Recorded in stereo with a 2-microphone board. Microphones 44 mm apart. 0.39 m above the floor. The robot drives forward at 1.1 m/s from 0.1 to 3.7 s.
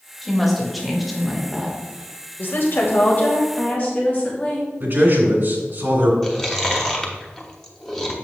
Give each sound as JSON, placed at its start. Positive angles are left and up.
{"t": 0.2, "sound": "a woman speaking", "side_deg": 0, "distance_m": 1.7}
{"t": 2.4, "sound": "a woman speaking", "side_deg": 55, "distance_m": 1.3}
{"t": 4.8, "sound": "a man speaking", "side_deg": -50, "distance_m": 2.0}
{"t": 6.2, "sound": "chewing", "side_deg": 10, "distance_m": 0.9}